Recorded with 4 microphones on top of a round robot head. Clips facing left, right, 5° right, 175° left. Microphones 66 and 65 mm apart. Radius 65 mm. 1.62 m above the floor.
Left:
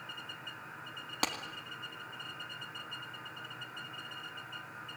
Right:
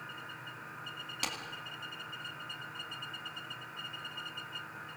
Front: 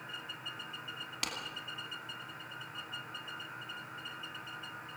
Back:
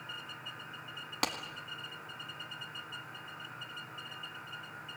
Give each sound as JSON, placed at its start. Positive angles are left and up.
{"t": 1.2, "sound": "a clap", "azimuth_deg": 130, "distance_m": 2.5}